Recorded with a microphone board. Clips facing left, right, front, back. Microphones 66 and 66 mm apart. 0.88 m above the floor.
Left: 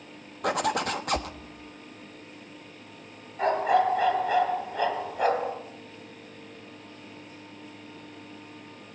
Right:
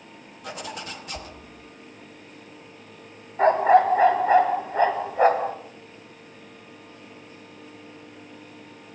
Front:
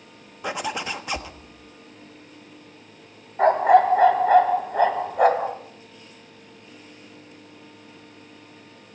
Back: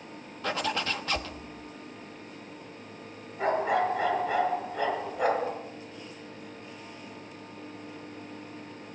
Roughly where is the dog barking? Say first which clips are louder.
Right 6 dB, front 10 dB; ahead right.